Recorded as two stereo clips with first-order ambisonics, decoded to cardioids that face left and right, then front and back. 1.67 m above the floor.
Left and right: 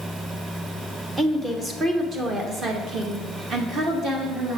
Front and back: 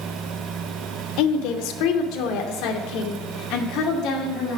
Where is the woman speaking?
10° right, 1.1 m; by 4.6 s 35° right, 3 m.